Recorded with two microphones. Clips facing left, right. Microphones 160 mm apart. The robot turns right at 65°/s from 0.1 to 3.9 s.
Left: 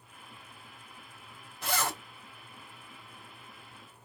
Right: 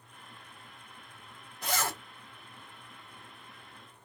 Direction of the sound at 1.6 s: Centre (ahead or behind).